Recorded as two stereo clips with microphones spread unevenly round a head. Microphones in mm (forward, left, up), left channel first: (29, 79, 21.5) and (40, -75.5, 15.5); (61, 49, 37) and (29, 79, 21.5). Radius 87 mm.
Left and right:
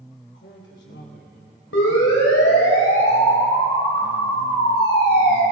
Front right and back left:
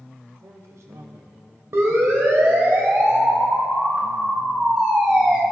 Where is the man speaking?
125° left, 3.5 m; by 2.7 s 145° right, 1.1 m.